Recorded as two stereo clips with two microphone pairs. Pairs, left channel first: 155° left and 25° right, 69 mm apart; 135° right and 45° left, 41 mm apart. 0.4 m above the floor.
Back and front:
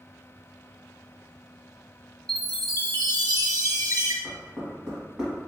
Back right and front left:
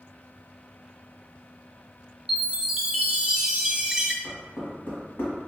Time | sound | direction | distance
2.3 | a chime | 25° right | 0.6 m
4.2 | knocking | 105° right | 1.8 m